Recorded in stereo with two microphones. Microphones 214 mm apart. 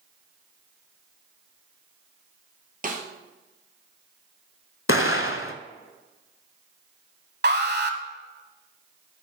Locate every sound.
2.8 s a snare drum: 40° right (ahead or behind), 1.9 m
4.9 s an explosion: 75° left (ahead or behind), 0.8 m
7.4 s an alarm: 55° right (ahead or behind), 1.0 m